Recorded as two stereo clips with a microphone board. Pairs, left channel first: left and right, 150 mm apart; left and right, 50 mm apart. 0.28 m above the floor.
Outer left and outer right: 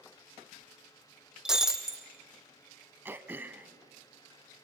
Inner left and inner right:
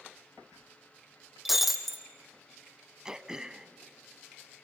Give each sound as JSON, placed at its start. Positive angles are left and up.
{"t": 1.4, "sound": "breaking glass", "side_deg": -5, "distance_m": 1.5}
{"t": 3.0, "sound": "throat clearing", "side_deg": -15, "distance_m": 0.8}